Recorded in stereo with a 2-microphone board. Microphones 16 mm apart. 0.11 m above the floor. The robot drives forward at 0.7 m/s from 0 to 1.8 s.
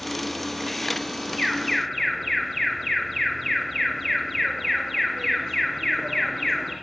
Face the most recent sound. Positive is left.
turn(degrees=30)  # may be behind; listen again after turning